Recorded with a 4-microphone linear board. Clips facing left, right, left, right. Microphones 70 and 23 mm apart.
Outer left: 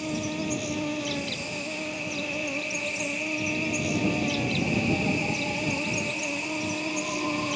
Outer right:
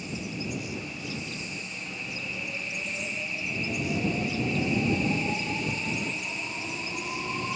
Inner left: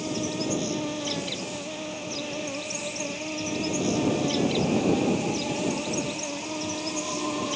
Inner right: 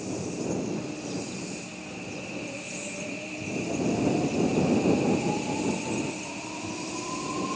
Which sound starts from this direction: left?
An insect, at 0.0 s.